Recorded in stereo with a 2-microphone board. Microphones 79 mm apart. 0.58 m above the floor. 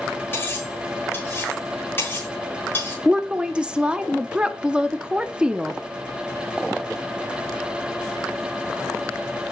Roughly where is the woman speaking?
Centre.